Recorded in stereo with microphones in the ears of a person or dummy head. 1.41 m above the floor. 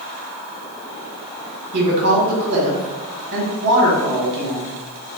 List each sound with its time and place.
1.7 s a woman speaking: 60° right (ahead or behind), 1.4 m